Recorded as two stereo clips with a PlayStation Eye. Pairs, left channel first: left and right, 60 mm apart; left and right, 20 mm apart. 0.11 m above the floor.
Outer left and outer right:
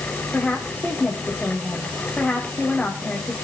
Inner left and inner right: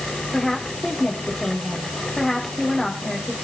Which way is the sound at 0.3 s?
5° left (ahead or behind).